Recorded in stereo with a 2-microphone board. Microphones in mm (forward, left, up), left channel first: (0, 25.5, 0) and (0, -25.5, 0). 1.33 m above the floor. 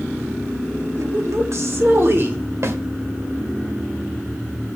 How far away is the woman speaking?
About 2.0 m.